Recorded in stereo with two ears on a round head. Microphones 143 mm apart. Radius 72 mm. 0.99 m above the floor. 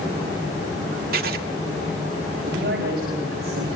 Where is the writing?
65° right (ahead or behind), 1.4 m.